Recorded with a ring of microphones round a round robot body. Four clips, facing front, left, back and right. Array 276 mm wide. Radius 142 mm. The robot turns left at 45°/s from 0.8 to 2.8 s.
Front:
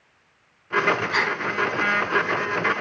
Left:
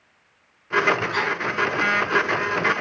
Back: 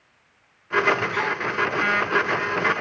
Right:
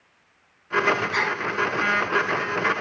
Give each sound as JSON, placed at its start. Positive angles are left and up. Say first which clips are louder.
{"t": 1.1, "sound": "a gasp", "louder": "left 1 dB, front 1 dB", "azimuth_deg": -5, "distance_m": 1.4}